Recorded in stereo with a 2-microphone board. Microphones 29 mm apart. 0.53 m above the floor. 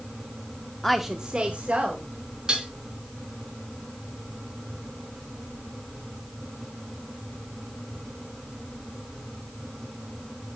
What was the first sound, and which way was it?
A woman speaking, 10° left (ahead or behind).